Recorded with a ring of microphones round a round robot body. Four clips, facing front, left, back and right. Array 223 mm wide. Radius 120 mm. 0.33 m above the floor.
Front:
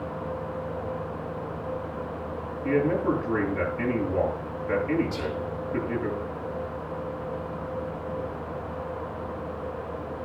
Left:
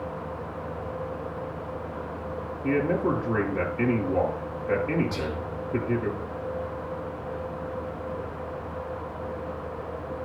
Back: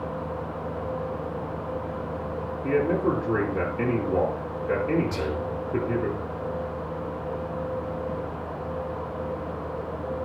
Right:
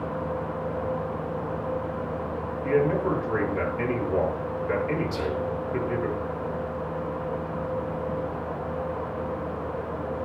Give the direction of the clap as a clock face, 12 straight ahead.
I don't hear a clap.